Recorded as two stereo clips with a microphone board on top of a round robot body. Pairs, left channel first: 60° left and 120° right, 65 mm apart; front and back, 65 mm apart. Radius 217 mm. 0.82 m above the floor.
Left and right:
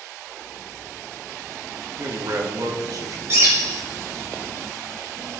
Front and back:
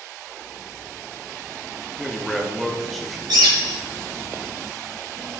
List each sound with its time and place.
2.0 s a man speaking: 90° right, 1.8 m
3.3 s a bird: 170° right, 0.6 m